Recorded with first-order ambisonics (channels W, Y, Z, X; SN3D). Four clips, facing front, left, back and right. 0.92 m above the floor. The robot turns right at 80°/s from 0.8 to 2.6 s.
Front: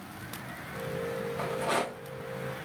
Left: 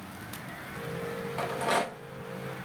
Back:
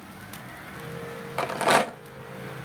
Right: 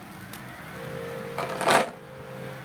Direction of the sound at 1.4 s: 165° right.